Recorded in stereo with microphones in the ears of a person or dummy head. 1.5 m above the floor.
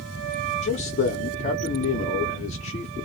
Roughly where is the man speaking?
Left.